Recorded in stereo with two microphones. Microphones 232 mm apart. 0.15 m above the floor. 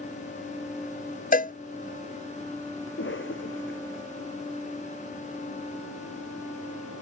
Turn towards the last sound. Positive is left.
turn(degrees=55)  # may be behind; listen again after turning